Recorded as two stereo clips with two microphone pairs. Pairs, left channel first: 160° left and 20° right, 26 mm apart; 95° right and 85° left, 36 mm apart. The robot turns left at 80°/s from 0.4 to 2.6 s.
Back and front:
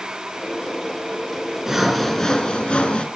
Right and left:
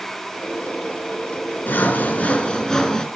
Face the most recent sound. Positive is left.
turn(degrees=-165)